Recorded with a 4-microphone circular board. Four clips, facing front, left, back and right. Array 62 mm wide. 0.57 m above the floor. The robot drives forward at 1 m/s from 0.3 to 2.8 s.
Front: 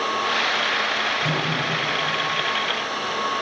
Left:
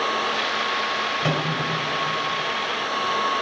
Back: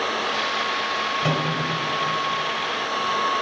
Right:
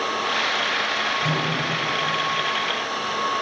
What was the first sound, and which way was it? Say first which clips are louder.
A microwave: even, back 1 dB; 125° left.